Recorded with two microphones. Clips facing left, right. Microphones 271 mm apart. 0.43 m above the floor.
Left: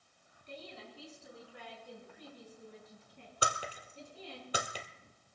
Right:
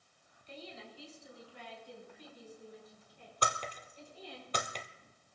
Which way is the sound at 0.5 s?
60° left (ahead or behind).